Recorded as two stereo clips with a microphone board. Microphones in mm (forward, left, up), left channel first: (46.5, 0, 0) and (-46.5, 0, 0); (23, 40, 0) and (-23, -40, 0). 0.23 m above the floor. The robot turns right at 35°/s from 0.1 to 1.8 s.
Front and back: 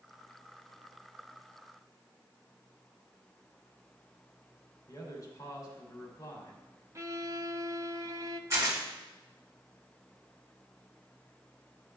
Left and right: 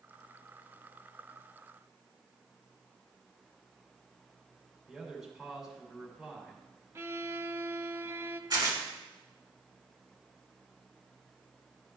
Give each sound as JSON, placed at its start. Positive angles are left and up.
{"t": 4.9, "sound": "a man speaking", "azimuth_deg": -35, "distance_m": 2.5}
{"t": 7.0, "sound": "a violin", "azimuth_deg": -160, "distance_m": 0.5}
{"t": 8.5, "sound": "tearing paper", "azimuth_deg": -130, "distance_m": 2.5}